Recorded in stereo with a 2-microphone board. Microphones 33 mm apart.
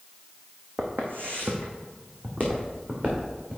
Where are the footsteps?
70° right (ahead or behind), 1.3 m; by 3.6 s 40° right (ahead or behind), 2.5 m.